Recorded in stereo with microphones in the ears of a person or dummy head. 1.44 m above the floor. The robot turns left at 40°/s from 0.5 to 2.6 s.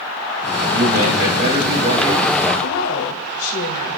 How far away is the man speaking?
About 2.5 m.